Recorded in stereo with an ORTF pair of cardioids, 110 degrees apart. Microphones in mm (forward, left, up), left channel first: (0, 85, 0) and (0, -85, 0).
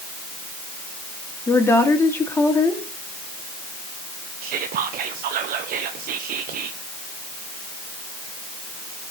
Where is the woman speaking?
15° left, 3 m.